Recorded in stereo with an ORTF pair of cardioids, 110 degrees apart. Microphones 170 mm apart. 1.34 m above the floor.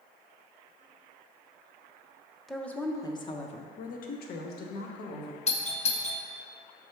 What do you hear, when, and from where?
2.5 s a woman speaking: straight ahead, 0.8 m; by 5.4 s 80° left, 1.5 m
5.5 s a doorbell: 45° left, 0.8 m